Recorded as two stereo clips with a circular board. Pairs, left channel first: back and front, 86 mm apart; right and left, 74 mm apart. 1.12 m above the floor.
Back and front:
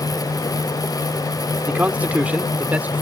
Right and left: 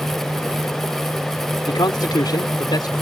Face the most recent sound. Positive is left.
turn(degrees=-70)